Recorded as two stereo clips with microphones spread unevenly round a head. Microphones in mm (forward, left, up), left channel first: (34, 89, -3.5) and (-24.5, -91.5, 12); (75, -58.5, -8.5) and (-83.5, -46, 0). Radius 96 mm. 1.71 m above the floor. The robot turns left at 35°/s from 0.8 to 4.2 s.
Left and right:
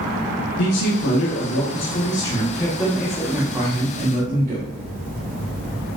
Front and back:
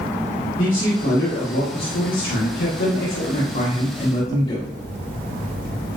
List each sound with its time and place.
0.6 s a man speaking: 65° left, 2 m; by 4.7 s 55° right, 2 m